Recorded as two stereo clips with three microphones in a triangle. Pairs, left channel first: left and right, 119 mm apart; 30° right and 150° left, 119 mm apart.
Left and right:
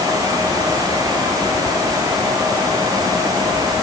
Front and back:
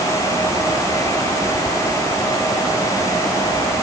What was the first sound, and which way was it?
Only background noise.